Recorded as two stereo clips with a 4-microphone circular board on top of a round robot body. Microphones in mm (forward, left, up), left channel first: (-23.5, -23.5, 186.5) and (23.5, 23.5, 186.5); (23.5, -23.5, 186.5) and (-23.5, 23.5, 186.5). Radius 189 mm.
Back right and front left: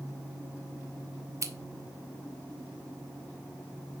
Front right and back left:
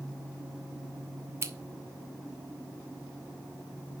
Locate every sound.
1.4 s scissors: 85° left, 1.6 m